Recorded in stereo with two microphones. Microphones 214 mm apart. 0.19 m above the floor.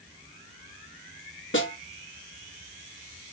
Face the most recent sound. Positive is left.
turn(degrees=65)  # may be behind; listen again after turning